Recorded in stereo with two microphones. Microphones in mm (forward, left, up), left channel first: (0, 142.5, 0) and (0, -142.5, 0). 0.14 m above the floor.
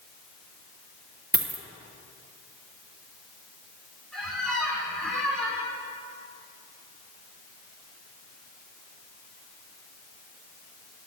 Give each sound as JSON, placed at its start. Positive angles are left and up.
{"t": 1.3, "sound": "a dropped coin", "side_deg": -35, "distance_m": 1.2}
{"t": 4.1, "sound": "a squeak", "side_deg": 0, "distance_m": 3.0}